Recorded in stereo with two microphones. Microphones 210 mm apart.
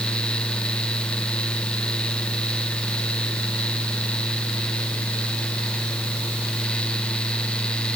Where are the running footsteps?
No running footsteps in this recording.